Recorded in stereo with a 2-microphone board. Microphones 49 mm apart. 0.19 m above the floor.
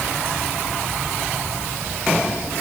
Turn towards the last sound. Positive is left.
No sound to turn to.